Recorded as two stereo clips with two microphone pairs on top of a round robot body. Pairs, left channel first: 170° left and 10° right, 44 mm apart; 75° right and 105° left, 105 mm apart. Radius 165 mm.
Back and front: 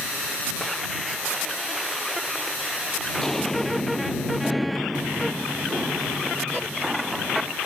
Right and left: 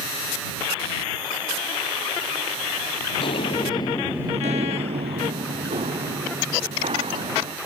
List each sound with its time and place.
3.2 s footsteps: 110° right; by 7.6 s 75° left